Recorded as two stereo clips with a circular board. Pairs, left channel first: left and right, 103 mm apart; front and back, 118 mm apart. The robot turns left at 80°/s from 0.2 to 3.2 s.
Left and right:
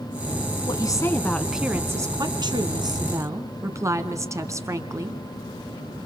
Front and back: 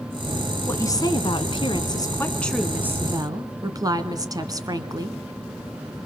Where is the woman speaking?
65° left, 2.0 m; by 5.2 s 135° right, 2.0 m.